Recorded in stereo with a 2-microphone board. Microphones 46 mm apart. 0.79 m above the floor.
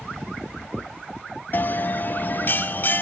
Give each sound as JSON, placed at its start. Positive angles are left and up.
{"t": 1.5, "sound": "a bell", "side_deg": 45, "distance_m": 0.8}